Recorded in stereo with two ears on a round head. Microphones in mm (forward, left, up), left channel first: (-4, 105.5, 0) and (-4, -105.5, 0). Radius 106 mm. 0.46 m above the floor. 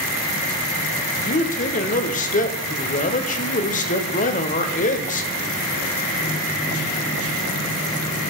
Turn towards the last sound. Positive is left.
turn(degrees=35)  # may be behind; listen again after turning